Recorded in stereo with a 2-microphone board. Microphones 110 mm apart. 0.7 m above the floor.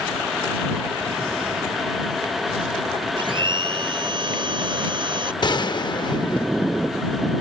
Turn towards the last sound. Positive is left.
turn(degrees=45)  # may be behind; listen again after turning